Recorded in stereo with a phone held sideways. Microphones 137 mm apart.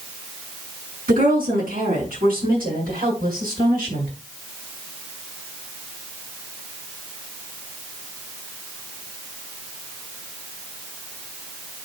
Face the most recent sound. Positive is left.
turn(degrees=-85)